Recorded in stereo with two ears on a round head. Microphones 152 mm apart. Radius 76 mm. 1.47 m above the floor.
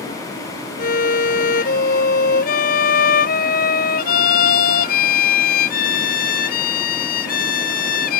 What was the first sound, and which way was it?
A violin, 60° left (ahead or behind).